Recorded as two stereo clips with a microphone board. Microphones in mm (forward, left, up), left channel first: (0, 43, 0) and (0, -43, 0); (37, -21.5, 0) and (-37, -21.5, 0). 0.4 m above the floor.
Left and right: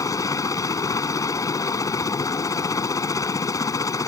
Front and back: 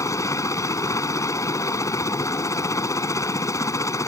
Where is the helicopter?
45° left.